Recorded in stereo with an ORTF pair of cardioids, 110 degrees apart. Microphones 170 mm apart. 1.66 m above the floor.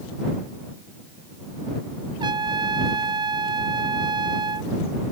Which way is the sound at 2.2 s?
25° right.